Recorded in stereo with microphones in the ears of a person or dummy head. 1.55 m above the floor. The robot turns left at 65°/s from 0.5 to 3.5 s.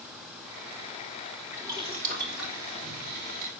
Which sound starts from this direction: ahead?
Boiling, at 1.5 s.